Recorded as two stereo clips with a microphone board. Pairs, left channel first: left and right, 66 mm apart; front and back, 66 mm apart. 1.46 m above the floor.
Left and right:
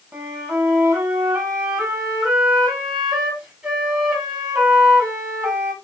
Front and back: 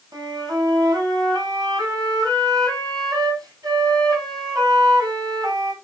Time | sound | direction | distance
0.1 | a flute | 160° right | 5.5 m